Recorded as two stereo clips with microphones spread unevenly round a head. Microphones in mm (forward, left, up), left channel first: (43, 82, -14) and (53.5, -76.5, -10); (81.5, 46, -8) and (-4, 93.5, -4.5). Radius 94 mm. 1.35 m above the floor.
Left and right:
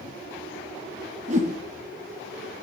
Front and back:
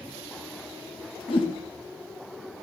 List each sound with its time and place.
1.3 s a whoosh: 55° right, 1.0 m